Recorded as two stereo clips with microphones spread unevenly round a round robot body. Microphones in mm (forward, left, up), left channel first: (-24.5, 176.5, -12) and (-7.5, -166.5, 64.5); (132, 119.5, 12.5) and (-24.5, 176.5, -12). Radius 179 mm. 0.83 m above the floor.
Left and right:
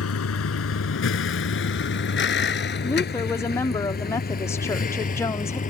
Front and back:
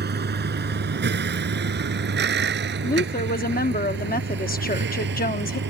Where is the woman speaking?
15° left.